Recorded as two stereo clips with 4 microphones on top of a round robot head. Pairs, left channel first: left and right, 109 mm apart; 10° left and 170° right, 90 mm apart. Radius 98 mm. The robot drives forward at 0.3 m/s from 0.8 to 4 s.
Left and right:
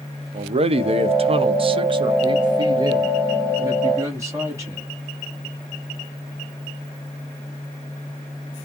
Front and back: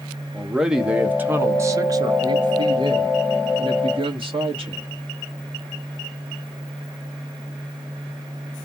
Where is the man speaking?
85° right, 0.6 m; by 4.9 s 155° right, 1.1 m.